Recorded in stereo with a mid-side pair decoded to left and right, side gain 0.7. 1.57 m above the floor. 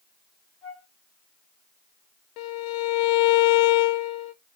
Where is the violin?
65° left, 0.9 m.